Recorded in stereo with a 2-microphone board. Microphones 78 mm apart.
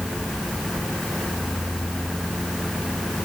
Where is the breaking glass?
No breaking glass in this recording.